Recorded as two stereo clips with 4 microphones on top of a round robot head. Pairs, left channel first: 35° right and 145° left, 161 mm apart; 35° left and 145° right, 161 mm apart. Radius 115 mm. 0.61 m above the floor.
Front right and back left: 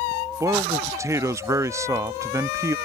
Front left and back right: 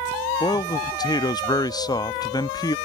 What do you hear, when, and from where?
0.4 s a man speaking: 85° left